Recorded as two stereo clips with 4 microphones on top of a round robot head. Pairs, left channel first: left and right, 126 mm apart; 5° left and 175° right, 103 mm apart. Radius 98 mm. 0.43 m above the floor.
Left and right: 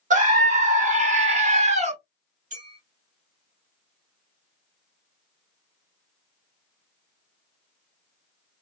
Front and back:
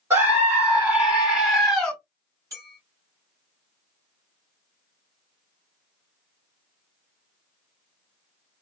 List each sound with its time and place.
0.1 s a scream: 105° right, 2 m; by 1.9 s 75° right, 1.6 m
2.5 s a clink: 110° right, 3 m